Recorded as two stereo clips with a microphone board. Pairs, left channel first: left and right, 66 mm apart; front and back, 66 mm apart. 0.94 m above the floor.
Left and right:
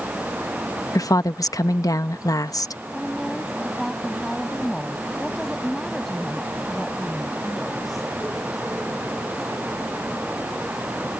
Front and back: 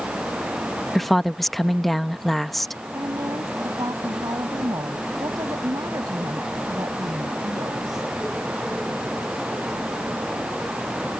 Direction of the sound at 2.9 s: Straight behind.